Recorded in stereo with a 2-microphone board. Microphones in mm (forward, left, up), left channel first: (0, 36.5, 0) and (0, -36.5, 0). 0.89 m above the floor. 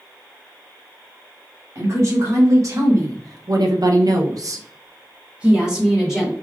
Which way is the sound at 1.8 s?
40° right (ahead or behind).